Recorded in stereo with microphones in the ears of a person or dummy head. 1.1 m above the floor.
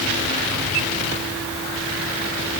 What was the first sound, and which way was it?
Only background noise.